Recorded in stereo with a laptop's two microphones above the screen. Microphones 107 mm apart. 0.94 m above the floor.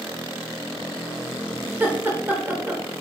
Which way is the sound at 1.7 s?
20° right (ahead or behind).